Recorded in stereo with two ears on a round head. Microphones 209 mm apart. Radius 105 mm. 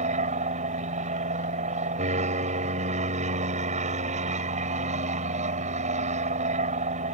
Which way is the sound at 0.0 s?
30° right (ahead or behind).